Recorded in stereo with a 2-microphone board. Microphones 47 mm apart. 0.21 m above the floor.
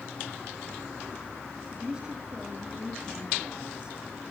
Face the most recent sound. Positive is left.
turn(degrees=-15)  # may be behind; listen again after turning